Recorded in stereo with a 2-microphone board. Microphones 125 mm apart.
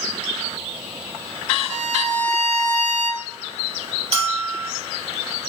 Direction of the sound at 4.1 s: 55° right (ahead or behind).